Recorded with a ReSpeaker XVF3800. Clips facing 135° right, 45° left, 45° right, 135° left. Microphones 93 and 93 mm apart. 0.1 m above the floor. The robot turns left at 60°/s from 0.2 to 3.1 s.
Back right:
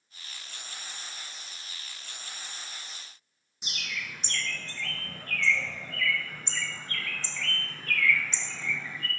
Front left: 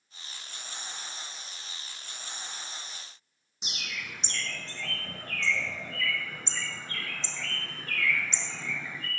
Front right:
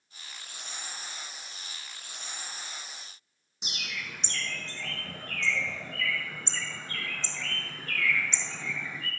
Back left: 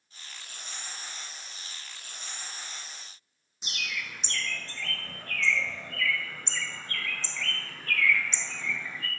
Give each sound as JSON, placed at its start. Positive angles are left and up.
{"t": 3.6, "sound": "a bird", "azimuth_deg": 0, "distance_m": 0.9}